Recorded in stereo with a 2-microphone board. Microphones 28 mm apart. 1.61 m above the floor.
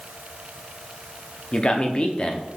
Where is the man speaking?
40° left (ahead or behind), 0.6 m.